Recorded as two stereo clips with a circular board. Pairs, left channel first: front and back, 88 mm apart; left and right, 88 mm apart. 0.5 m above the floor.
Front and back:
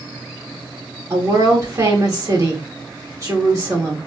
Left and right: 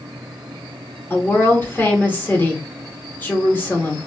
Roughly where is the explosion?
No explosion in this recording.